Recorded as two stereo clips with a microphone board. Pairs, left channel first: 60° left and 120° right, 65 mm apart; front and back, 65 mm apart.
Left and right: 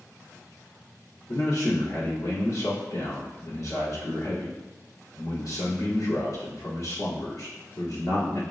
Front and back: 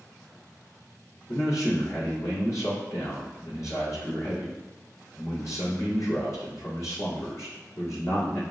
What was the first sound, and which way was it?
A man speaking, 40° left.